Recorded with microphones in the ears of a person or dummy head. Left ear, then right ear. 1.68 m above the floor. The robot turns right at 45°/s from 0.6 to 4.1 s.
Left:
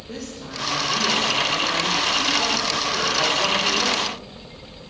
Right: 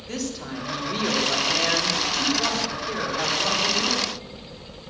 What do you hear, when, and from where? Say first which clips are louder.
0.1 s a woman speaking: right 3 dB; 80° right, 3.5 m; by 4.0 s 75° left, 3.5 m